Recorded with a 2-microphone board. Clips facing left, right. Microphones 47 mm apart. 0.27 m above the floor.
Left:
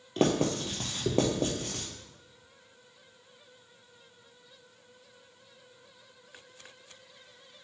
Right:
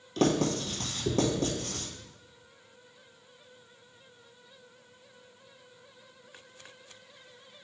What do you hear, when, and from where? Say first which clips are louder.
0.2 s writing: even; 25° left (ahead or behind), 1.3 m